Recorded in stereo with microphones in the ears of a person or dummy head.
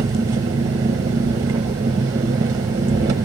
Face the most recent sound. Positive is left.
turn(degrees=-20)  # may be behind; listen again after turning